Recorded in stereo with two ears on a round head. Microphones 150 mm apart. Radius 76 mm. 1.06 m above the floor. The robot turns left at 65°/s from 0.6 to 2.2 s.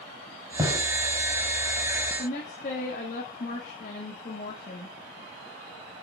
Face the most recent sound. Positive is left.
turn(degrees=45)  # may be behind; listen again after turning